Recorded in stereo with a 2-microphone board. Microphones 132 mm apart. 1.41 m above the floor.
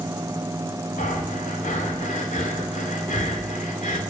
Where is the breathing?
70° left (ahead or behind), 2.5 m.